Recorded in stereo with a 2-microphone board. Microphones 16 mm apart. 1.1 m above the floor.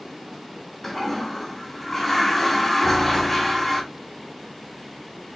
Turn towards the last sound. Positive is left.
turn(degrees=20)  # may be behind; listen again after turning